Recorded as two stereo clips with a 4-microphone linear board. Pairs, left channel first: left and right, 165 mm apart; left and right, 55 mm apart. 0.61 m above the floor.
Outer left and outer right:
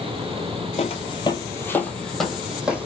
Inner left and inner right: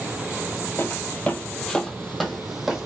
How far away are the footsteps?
About 0.7 m.